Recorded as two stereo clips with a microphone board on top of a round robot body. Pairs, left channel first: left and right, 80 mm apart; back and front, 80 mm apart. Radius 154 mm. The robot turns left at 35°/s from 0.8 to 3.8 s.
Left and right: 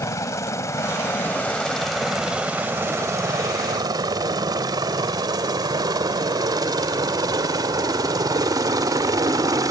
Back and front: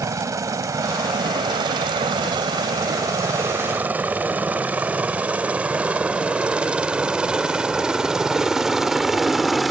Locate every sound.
0.0 s a helicopter: 45° left; by 9.7 s 90° right